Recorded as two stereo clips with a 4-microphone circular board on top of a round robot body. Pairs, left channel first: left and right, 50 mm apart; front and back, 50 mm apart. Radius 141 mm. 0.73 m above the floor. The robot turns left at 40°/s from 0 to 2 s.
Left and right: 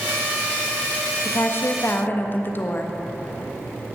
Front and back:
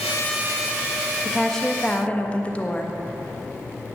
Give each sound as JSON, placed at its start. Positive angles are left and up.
{"t": 1.2, "sound": "a woman speaking", "azimuth_deg": 85, "distance_m": 1.6}